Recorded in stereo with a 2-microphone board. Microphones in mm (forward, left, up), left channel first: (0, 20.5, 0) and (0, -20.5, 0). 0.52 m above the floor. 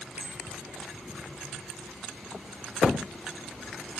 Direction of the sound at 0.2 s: 30° right (ahead or behind).